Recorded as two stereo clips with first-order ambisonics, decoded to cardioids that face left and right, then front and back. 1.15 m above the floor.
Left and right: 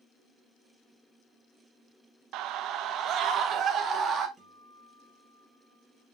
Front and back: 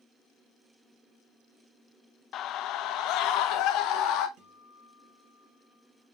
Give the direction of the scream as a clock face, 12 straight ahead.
2 o'clock.